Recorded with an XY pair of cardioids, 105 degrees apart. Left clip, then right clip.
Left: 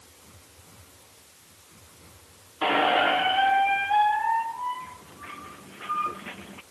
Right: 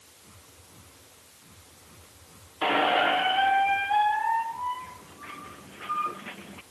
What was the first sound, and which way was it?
A squeak, 5° left.